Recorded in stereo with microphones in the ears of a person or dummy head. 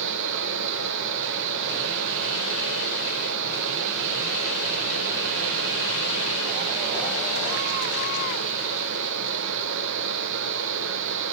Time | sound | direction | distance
0.0 | a fan | 65° right (ahead or behind) | 1.0 m